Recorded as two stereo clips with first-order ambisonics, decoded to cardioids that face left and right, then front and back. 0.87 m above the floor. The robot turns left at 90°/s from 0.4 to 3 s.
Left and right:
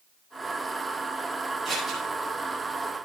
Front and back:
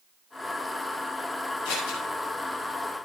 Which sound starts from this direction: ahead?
Scissors, at 1.6 s.